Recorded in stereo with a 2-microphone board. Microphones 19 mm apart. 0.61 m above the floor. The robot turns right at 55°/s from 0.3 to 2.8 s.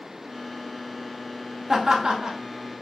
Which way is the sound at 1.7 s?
30° right (ahead or behind).